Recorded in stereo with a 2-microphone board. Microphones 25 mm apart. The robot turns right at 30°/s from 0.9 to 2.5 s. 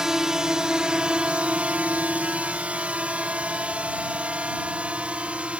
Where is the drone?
20° right (ahead or behind); by 5.6 s 60° right (ahead or behind).